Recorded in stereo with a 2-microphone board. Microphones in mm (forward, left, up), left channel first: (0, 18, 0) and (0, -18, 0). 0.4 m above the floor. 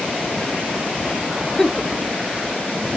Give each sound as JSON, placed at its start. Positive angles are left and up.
{"t": 1.6, "sound": "a giggle", "side_deg": 10, "distance_m": 0.6}